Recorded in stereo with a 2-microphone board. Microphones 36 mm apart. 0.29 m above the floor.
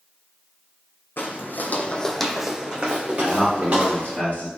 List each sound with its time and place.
1.2 s footsteps: 70° left (ahead or behind), 0.8 m; by 4.2 s 45° right (ahead or behind), 1.8 m
3.2 s a man speaking: 40° left (ahead or behind), 1.7 m